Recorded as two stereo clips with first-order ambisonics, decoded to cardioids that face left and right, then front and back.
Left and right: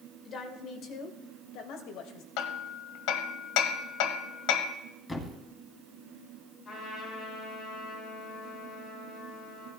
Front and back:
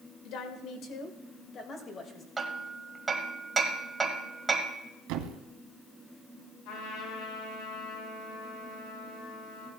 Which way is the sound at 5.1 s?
165° left.